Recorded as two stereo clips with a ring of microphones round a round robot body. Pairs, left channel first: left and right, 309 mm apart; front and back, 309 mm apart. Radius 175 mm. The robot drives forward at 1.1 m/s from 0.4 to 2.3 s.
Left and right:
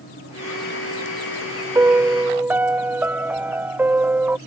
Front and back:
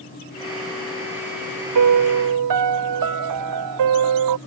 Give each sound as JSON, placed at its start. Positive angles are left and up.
{"t": 1.8, "sound": "a piano", "azimuth_deg": -170}